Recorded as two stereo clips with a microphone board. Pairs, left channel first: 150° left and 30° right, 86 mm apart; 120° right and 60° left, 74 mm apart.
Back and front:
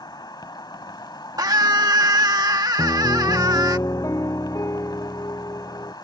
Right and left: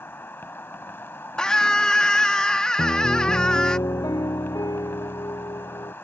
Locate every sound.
0.0 s an insect: straight behind
1.4 s a scream: 45° right
2.8 s a piano: 155° right